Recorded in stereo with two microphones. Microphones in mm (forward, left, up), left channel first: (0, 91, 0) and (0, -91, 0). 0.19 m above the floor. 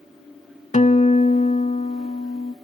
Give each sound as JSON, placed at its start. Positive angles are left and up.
{"t": 0.7, "sound": "a guitar", "side_deg": 40, "distance_m": 0.5}